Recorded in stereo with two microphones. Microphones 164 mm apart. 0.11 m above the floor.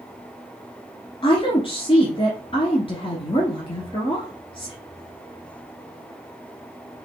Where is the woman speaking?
35° left (ahead or behind), 1.3 m.